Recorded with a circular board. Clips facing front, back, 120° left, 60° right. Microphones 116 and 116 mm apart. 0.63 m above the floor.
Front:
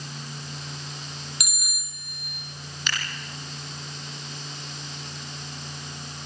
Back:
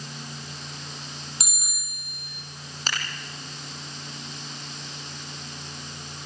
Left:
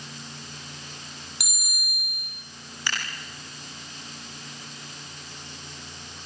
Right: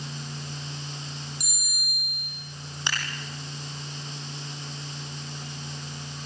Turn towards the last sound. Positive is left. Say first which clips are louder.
# even, even
turn(degrees=-130)